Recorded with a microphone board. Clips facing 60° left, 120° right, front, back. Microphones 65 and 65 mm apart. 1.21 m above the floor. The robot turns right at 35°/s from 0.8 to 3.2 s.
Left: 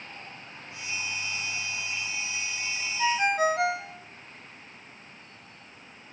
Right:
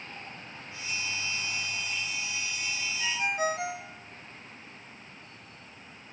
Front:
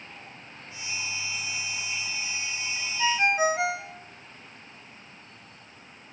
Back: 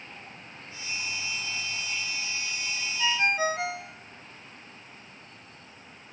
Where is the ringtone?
60° left, 1.0 m; by 4.0 s 70° left, 1.0 m.